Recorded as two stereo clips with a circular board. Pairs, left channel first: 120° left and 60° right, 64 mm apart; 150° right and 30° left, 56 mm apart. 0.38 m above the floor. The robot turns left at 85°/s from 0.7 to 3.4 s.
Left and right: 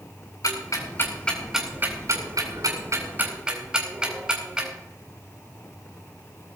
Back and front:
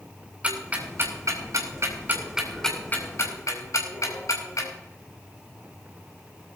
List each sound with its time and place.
0.4 s ticking: 95° left, 4 m; by 4.7 s 135° right, 4 m